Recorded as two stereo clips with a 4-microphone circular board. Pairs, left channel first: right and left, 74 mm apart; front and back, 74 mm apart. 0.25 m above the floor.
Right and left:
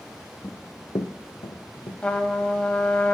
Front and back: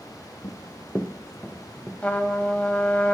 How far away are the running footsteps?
About 0.9 m.